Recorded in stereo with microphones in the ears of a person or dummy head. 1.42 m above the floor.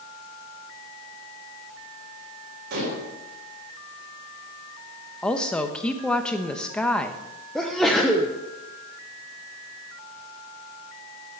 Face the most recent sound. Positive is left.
turn(degrees=5)  # may be behind; listen again after turning